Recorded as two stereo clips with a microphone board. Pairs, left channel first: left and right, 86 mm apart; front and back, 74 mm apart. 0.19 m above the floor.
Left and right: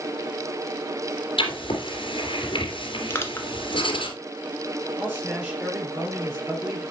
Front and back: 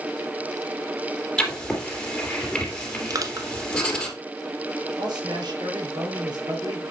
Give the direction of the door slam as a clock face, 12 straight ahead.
No door slam in this recording.